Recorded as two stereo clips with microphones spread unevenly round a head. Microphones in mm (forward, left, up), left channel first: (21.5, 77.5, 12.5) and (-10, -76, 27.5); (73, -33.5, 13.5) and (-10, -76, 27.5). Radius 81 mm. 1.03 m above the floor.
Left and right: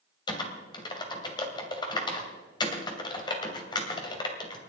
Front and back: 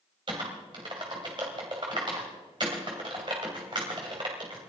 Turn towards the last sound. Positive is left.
turn(degrees=145)